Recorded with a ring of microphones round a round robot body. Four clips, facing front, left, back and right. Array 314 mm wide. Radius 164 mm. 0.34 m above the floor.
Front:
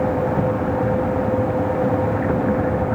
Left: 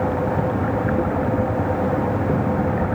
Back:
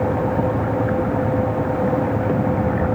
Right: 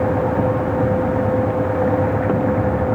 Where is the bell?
I don't hear a bell.